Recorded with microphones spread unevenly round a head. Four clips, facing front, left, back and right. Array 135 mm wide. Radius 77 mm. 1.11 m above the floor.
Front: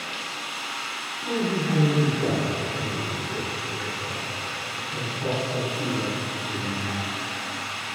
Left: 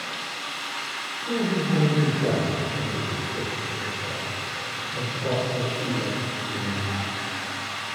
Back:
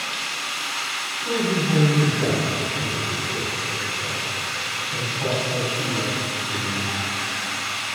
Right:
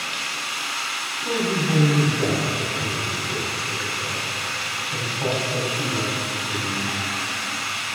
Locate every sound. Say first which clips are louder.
0.0 s running water: right 3 dB, back 3 dB; 40° right, 1.1 m
1.2 s a man speaking: right 1 dB, back 2 dB; 110° right, 3 m